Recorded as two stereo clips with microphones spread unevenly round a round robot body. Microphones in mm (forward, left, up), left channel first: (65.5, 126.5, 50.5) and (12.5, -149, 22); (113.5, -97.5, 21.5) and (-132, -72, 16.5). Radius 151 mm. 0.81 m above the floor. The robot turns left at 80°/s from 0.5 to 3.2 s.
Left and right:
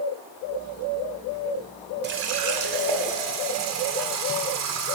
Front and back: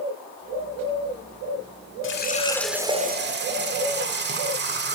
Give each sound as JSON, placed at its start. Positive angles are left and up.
{"t": 2.0, "sound": "a running tap", "azimuth_deg": -45, "distance_m": 1.5}